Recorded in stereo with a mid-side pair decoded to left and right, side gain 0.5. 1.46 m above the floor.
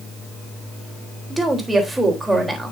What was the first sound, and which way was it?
A woman speaking, 15° right.